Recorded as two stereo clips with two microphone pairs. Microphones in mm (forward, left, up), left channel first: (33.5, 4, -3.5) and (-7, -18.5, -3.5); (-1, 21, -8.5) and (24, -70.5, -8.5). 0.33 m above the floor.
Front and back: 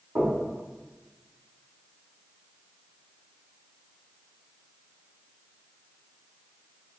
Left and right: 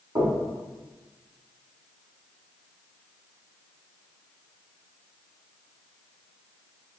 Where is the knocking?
110° right, 1.7 m.